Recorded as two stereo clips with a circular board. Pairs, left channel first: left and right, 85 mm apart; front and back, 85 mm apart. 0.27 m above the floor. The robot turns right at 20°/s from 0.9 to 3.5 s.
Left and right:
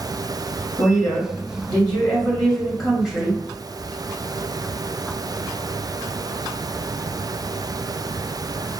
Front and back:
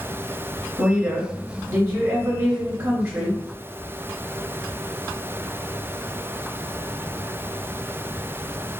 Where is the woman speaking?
145° left, 1.3 m; by 3.4 s 165° right, 1.3 m.